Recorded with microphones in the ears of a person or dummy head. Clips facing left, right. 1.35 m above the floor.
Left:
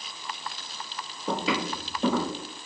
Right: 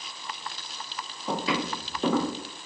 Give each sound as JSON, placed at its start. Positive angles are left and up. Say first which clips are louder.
{"t": 1.3, "sound": "footsteps", "louder": "even", "side_deg": 20, "distance_m": 1.8}